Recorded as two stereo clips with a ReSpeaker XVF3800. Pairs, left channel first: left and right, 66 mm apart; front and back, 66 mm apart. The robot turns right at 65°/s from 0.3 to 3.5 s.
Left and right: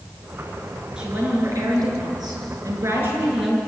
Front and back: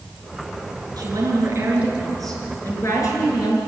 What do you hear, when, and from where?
1.0 s a woman speaking: 165° right, 5.5 m; by 3.6 s straight ahead, 5.5 m